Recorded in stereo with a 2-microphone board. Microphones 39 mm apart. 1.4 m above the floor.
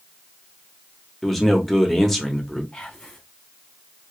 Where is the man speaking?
5° left (ahead or behind), 1.3 m.